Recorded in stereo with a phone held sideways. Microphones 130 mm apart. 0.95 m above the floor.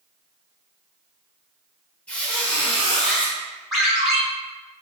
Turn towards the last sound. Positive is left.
turn(degrees=0)  # may be behind; listen again after turning